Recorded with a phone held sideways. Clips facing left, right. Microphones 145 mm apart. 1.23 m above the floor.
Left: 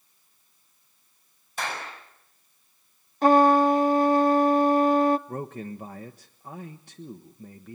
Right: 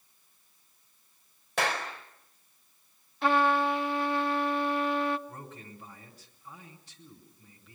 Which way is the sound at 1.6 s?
85° right.